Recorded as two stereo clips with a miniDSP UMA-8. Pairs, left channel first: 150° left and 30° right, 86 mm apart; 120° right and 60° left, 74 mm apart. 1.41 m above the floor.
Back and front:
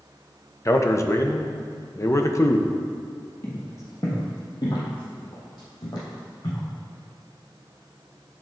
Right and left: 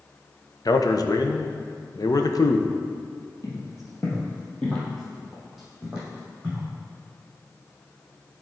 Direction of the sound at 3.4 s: 150° right.